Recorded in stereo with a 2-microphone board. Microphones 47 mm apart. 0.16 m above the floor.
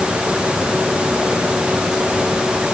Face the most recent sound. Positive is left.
No sound to turn to.